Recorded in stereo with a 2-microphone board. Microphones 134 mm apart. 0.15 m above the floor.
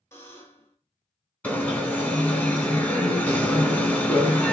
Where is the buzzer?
20° left (ahead or behind), 1.3 m.